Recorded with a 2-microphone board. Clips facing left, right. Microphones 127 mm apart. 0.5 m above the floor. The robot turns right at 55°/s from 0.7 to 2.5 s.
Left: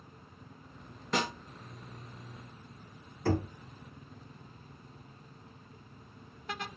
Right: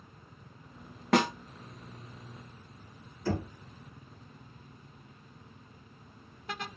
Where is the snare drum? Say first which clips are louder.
Right 7 dB; 70° right (ahead or behind), 0.8 m; by 1.3 s 65° right (ahead or behind), 0.8 m.